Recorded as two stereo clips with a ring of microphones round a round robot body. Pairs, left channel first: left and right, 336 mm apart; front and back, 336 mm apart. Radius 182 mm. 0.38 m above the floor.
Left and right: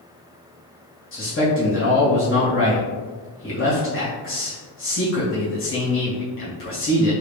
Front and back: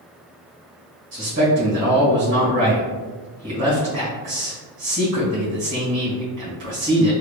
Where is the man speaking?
130° left, 1.8 m.